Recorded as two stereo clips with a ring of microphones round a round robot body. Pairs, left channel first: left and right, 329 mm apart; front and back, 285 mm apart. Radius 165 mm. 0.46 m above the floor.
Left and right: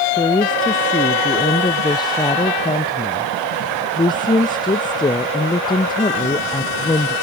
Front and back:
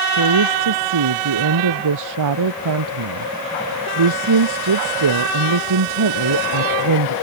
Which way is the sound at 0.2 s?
170° left.